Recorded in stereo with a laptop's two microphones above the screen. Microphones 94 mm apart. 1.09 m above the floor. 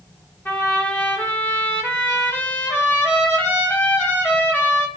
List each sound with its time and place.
0.5 s a trumpet: 20° left (ahead or behind), 0.9 m